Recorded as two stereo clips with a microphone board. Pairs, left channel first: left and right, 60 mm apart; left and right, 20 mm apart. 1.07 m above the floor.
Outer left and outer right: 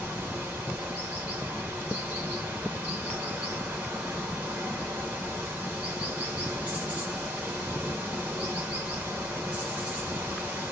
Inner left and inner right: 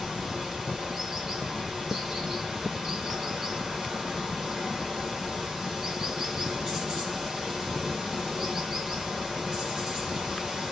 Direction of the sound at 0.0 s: 25° right (ahead or behind).